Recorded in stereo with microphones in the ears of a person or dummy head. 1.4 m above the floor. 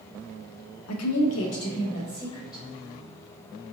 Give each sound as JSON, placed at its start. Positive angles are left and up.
{"t": 0.9, "sound": "a woman speaking", "side_deg": 80, "distance_m": 1.0}